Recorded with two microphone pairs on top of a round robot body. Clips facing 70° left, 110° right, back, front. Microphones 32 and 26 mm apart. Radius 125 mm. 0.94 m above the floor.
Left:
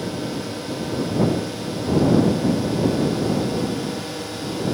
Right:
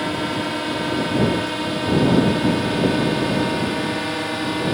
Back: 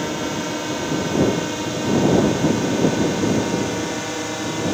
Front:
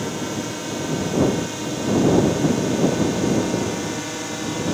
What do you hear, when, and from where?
0.0 s a drone: 105° right; by 4.7 s 95° right